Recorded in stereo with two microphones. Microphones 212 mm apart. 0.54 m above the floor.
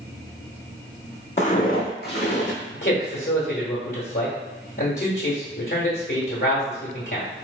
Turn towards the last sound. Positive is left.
turn(degrees=55)  # may be behind; listen again after turning